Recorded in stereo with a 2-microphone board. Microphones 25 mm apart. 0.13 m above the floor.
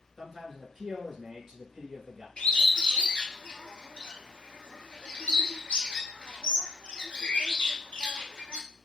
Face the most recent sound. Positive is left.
turn(degrees=50)  # may be behind; listen again after turning